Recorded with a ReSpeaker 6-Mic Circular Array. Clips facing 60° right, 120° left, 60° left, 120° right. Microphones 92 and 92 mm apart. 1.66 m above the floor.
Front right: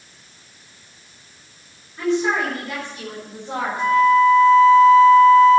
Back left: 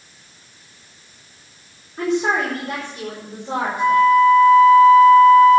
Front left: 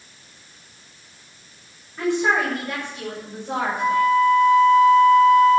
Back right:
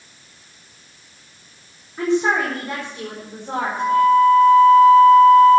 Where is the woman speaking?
170° left, 4.5 m; by 4.0 s 175° right, 5.5 m.